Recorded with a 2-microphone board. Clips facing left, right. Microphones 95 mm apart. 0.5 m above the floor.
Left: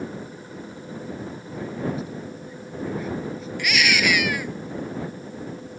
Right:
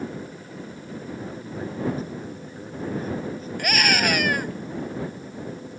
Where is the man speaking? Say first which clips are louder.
Even; 40° right (ahead or behind).